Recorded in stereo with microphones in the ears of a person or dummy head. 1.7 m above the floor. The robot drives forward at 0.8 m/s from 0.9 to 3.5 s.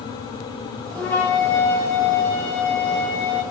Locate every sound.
0.9 s a flute: 15° left (ahead or behind), 3.5 m; by 3.4 s 10° left (ahead or behind), 5.5 m